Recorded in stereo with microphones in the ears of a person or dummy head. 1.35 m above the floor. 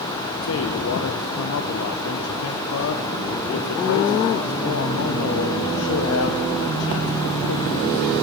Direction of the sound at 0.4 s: 75° left (ahead or behind).